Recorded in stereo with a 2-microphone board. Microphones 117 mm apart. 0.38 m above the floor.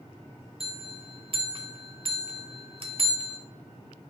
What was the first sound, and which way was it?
A bell, 50° right (ahead or behind).